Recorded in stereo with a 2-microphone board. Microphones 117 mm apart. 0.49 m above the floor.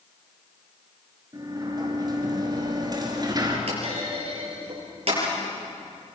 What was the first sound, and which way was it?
A sliding door, 30° right (ahead or behind).